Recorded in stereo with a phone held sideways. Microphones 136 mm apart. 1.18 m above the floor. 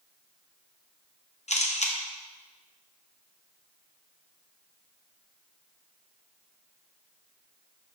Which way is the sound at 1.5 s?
55° left (ahead or behind).